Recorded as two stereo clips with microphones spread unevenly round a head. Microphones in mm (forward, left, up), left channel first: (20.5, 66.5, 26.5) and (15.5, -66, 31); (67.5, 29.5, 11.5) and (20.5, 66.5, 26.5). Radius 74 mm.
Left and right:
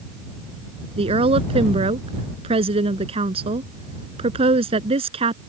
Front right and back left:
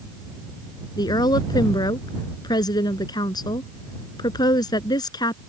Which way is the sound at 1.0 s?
45° right.